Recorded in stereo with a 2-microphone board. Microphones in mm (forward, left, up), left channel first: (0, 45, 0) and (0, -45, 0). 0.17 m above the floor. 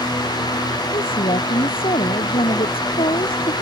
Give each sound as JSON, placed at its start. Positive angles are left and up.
{"t": 0.9, "sound": "a woman speaking", "side_deg": 75}